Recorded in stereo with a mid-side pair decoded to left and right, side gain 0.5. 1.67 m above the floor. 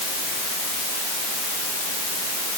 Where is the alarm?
No alarm in this recording.